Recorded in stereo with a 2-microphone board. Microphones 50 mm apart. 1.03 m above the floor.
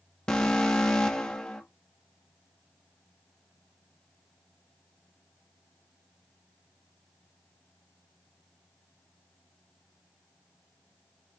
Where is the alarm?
20° left (ahead or behind), 1.1 m.